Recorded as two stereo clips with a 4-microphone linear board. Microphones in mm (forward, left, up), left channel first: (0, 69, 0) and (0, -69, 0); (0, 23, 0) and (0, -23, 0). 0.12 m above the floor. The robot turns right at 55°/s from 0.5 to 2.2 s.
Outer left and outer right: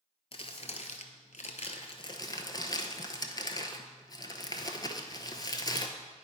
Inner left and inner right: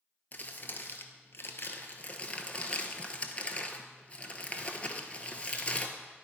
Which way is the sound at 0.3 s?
45° left (ahead or behind).